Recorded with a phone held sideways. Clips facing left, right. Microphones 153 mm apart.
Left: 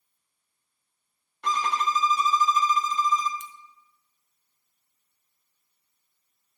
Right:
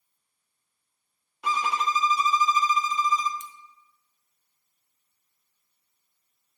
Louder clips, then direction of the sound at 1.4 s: Even; 5° right (ahead or behind).